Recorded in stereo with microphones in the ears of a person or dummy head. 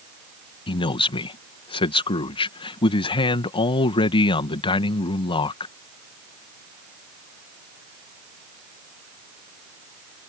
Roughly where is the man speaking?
Left.